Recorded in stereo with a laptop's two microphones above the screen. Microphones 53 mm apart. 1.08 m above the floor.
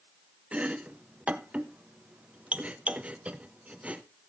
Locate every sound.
0.5 s chopping: 25° right (ahead or behind), 0.7 m